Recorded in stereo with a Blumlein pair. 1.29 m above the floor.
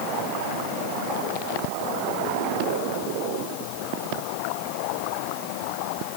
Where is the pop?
I don't hear a pop.